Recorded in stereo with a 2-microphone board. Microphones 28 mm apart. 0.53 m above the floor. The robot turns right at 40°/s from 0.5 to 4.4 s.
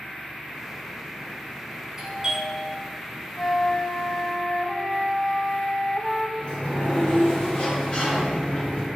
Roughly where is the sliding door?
Left.